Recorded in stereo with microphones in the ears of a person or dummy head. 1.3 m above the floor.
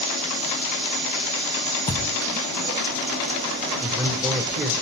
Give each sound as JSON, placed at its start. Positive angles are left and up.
{"t": 1.9, "sound": "a thud", "side_deg": 15, "distance_m": 0.7}
{"t": 3.8, "sound": "a man speaking", "side_deg": -15, "distance_m": 0.9}